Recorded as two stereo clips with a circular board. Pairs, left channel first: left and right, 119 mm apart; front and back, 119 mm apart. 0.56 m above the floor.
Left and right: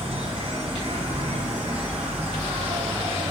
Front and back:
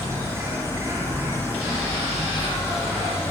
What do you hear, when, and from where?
0.0 s an insect: 115° right, 4.5 m